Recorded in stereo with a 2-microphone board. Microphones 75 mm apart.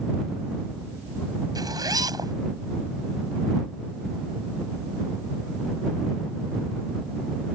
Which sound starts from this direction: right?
A zipper, at 1.6 s.